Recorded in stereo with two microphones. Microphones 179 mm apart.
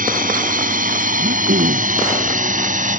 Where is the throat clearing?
75° right (ahead or behind).